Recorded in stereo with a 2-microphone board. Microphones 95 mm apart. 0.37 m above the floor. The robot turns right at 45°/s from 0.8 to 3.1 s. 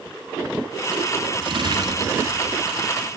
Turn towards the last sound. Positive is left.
turn(degrees=10)